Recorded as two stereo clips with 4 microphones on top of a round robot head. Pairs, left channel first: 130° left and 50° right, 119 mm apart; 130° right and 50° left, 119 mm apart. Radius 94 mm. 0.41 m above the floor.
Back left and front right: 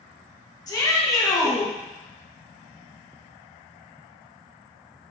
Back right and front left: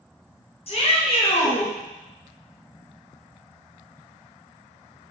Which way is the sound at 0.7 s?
170° right.